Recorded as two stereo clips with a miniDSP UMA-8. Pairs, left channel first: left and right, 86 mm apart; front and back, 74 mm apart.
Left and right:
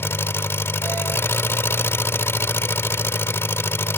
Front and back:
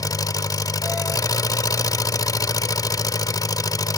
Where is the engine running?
30° left.